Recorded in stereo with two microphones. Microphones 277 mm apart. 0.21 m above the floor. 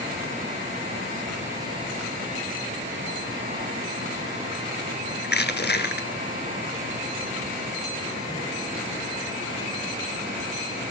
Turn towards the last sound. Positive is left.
turn(degrees=40)  # may be behind; listen again after turning